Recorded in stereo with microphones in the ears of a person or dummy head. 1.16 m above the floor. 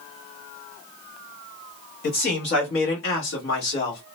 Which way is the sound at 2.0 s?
45° left (ahead or behind).